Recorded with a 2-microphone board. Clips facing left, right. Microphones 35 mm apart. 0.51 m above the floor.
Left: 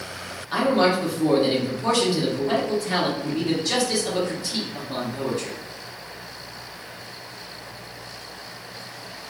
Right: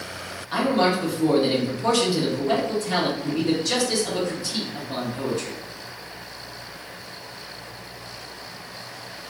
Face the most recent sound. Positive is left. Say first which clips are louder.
# left 1 dB
turn(degrees=5)  # may be behind; listen again after turning